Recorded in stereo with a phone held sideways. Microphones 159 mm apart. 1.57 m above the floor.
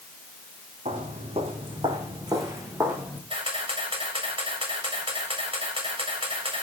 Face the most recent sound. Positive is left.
turn(degrees=-35)  # may be behind; listen again after turning